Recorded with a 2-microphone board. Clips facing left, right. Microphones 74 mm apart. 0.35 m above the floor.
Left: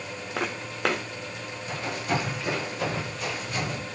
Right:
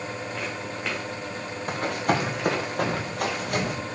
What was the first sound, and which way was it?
Footsteps, 80° left.